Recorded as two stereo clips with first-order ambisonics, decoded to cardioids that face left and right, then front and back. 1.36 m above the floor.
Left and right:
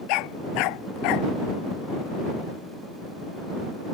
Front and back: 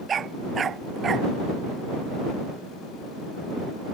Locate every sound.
0.1 s a dog barking: 115° left